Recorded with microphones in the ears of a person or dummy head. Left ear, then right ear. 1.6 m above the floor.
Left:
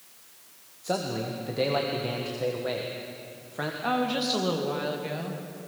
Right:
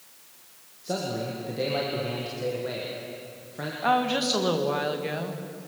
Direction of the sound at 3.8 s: 20° right (ahead or behind).